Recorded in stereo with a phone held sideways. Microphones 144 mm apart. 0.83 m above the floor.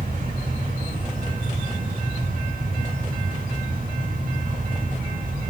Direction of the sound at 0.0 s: 90° right.